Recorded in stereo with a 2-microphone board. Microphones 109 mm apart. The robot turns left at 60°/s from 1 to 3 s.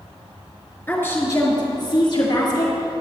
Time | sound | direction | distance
0.9 | a woman speaking | 150° left | 2 m